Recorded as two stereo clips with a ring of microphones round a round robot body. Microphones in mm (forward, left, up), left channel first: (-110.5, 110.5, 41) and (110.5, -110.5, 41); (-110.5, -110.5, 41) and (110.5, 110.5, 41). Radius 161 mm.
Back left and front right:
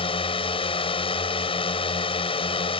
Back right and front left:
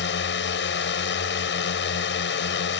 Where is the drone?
160° right.